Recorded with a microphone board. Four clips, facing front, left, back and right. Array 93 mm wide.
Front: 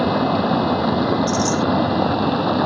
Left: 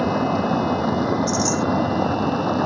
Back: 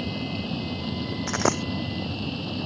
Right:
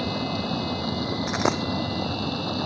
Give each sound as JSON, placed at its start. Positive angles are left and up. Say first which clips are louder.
{"t": 0.0, "sound": "running water", "louder": "left 8 dB, front 14 dB", "azimuth_deg": 25}
{"t": 1.3, "sound": "a dropped coin", "louder": "left 3 dB, front 6 dB", "azimuth_deg": -140}